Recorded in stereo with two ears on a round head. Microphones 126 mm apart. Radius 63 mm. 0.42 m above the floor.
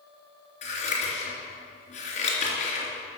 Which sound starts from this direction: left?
Scissors, at 0.6 s.